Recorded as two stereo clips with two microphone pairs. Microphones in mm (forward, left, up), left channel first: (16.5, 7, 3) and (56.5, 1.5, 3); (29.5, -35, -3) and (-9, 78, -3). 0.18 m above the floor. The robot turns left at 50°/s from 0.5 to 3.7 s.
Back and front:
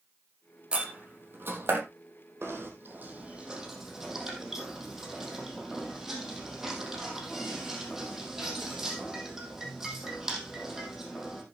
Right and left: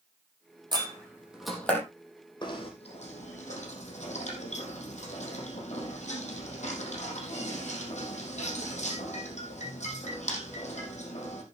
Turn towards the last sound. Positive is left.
turn(degrees=-85)